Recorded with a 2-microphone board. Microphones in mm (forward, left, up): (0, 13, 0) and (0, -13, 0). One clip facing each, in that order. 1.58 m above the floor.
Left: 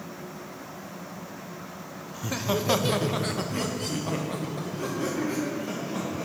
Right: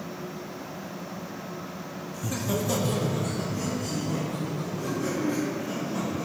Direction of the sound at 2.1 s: 15° left (ahead or behind).